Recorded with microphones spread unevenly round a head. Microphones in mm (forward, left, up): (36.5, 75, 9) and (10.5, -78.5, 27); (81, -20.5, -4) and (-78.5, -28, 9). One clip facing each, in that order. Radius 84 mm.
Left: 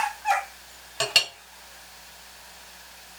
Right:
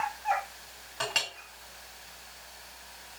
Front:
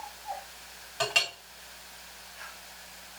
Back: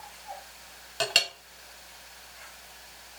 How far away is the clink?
About 1.9 m.